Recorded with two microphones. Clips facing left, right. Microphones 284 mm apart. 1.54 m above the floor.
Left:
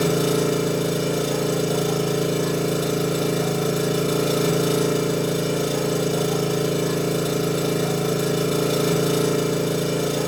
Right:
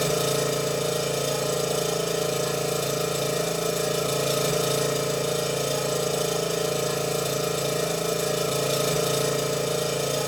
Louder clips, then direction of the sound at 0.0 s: Left 5 dB; 65° left (ahead or behind).